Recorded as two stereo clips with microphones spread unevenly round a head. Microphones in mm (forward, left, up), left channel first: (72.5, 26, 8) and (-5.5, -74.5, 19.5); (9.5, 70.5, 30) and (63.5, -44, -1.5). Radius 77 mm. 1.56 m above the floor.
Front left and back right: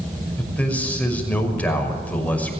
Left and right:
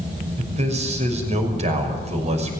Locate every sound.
0.4 s a man speaking: 25° right, 6 m